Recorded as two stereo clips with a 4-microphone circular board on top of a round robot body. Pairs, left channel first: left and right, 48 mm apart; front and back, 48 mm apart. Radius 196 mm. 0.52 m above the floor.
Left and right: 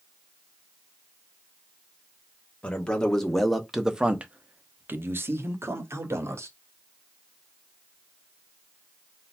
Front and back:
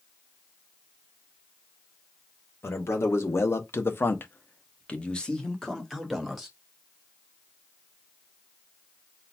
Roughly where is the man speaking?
Ahead.